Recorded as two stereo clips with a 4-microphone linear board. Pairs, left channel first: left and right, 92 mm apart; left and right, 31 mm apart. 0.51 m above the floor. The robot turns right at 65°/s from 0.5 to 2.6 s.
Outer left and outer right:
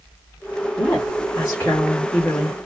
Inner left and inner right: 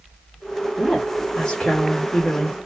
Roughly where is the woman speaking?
Ahead left.